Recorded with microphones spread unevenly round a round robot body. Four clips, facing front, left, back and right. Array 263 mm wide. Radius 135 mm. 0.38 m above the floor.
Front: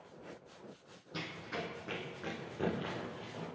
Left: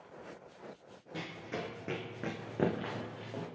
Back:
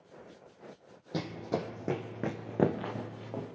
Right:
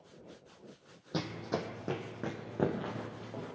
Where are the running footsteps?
140° right, 0.7 m; by 3.5 s 175° left, 2.0 m.